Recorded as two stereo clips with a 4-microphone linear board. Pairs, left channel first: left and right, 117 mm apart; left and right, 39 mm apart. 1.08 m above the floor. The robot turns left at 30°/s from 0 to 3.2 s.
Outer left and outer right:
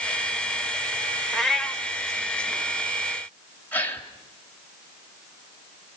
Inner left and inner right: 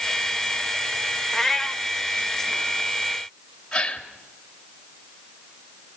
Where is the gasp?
15° left (ahead or behind), 2.5 m.